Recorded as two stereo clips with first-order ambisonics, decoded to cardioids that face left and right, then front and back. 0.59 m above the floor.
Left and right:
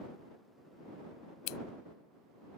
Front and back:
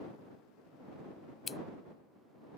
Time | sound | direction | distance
1.5 | scissors | 70° left | ?